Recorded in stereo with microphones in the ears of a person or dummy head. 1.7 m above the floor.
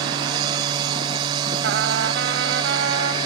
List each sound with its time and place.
0.0 s a machine running: 25° right (ahead or behind)
1.6 s a trumpet: 75° right (ahead or behind)